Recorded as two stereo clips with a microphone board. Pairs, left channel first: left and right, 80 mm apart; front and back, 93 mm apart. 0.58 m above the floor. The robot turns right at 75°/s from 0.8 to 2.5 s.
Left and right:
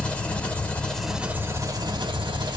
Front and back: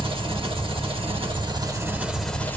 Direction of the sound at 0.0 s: 165° left.